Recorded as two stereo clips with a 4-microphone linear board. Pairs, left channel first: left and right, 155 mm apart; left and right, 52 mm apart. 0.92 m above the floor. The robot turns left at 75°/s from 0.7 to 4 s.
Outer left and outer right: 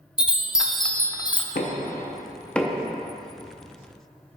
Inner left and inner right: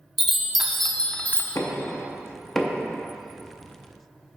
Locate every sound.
0.2 s a chime: 175° right, 0.5 m; by 1.4 s 130° left, 0.5 m
1.6 s knocking: 80° left, 0.6 m; by 2.8 s 15° right (ahead or behind), 0.6 m